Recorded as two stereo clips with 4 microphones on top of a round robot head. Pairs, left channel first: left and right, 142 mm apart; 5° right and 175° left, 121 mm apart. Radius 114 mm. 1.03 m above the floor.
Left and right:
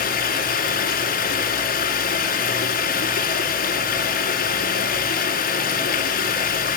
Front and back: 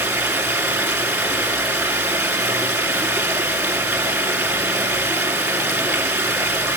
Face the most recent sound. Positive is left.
turn(degrees=105)